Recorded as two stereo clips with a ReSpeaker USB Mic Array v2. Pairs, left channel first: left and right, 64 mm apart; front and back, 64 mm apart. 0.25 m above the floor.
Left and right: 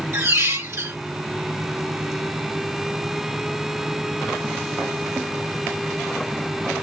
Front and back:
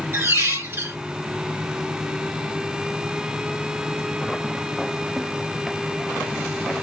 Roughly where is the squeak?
Behind right.